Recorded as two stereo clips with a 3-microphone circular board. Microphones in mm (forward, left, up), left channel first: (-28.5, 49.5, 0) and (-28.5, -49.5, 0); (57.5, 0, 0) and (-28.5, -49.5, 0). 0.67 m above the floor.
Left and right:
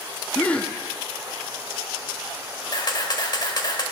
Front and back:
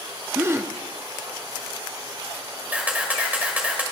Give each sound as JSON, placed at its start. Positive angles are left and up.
{"t": 0.3, "sound": "a gasp", "azimuth_deg": 160, "distance_m": 0.6}
{"t": 2.7, "sound": "a camera shutter", "azimuth_deg": 135, "distance_m": 1.4}